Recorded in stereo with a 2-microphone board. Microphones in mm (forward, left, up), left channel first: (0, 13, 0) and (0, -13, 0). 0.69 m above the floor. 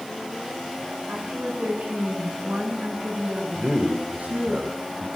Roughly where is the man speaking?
Right.